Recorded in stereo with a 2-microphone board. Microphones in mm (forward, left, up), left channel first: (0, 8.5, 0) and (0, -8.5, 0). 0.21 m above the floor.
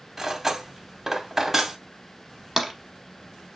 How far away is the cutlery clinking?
About 0.6 m.